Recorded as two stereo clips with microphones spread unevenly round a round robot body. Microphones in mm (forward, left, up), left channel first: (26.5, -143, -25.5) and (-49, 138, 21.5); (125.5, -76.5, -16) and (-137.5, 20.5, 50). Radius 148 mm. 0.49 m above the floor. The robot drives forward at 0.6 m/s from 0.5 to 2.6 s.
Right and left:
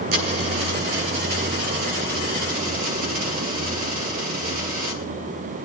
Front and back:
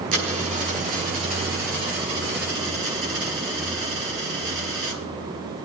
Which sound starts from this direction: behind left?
A dropped coin, at 0.1 s.